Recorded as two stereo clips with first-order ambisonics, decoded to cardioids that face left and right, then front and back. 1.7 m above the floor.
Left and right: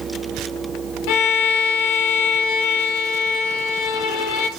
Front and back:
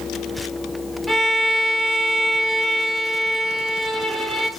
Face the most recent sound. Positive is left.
turn(degrees=90)